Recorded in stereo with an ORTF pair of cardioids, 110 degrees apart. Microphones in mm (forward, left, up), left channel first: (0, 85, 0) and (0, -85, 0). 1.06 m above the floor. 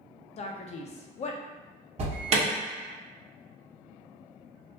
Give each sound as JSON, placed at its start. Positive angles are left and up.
{"t": 0.4, "sound": "a man speaking", "azimuth_deg": 40, "distance_m": 0.6}
{"t": 2.0, "sound": "an alarm", "azimuth_deg": -40, "distance_m": 1.0}